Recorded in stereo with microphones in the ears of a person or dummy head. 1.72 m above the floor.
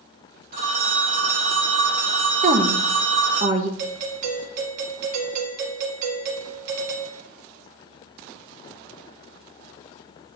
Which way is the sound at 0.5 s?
60° right (ahead or behind).